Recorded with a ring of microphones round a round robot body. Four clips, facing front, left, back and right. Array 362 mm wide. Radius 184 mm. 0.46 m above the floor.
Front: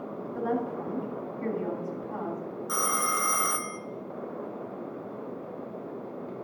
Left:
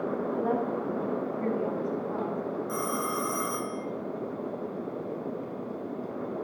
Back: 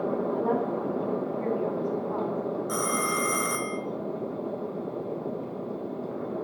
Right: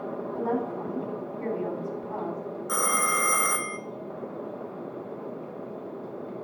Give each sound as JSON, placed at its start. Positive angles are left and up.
{"t": 0.3, "sound": "a woman speaking", "azimuth_deg": -55, "distance_m": 3.5}
{"t": 2.7, "sound": "a phone ringing", "azimuth_deg": -85, "distance_m": 0.7}